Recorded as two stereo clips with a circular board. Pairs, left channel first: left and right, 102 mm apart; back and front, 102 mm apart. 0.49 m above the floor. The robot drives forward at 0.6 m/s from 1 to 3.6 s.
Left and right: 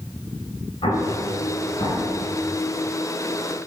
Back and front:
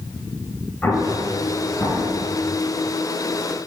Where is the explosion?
110° left, 2.5 m; by 2.1 s 125° left, 2.5 m.